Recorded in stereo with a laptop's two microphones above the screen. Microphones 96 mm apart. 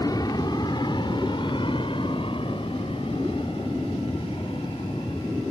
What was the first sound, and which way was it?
An aircraft, 40° left (ahead or behind).